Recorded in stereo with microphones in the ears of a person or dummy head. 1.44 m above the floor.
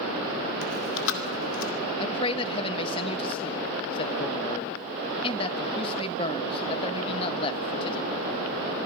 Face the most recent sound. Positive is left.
turn(degrees=25)  # may be behind; listen again after turning